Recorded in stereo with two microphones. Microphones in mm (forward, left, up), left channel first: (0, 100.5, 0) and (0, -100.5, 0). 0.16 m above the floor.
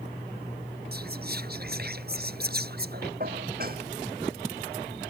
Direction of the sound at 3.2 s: 50° right (ahead or behind).